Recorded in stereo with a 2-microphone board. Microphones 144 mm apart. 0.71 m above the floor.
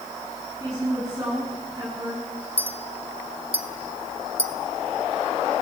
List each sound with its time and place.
0.6 s a woman speaking: 20° right (ahead or behind), 8 m; by 2.5 s 30° right (ahead or behind), 8 m
2.6 s a clink: 45° right (ahead or behind), 1.1 m